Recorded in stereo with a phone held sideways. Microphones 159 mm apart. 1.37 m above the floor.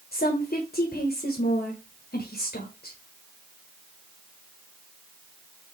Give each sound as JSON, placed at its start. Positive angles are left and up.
{"t": 0.1, "sound": "a woman speaking", "side_deg": 80, "distance_m": 1.1}